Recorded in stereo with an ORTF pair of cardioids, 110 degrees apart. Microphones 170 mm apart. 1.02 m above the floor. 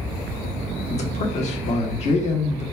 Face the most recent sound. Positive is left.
turn(degrees=40)